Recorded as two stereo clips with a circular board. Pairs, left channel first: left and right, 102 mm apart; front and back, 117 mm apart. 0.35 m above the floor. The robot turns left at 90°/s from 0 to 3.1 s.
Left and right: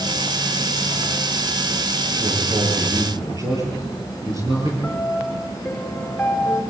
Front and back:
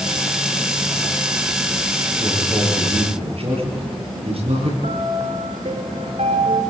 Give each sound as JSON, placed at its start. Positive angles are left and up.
{"t": 2.2, "sound": "a man speaking", "azimuth_deg": -65, "distance_m": 10.0}
{"t": 4.8, "sound": "a piano", "azimuth_deg": 170, "distance_m": 4.0}